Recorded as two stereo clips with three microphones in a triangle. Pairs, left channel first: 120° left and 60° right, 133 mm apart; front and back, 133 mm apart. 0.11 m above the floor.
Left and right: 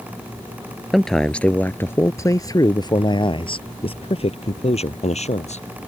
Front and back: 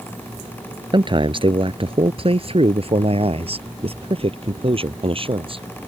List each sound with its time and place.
0.9 s a man speaking: 150° right; by 5.7 s 140° left